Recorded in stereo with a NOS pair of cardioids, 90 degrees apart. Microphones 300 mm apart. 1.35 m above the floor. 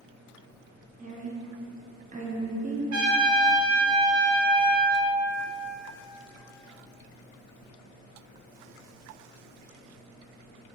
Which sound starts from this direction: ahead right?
A woman speaking, at 1.0 s.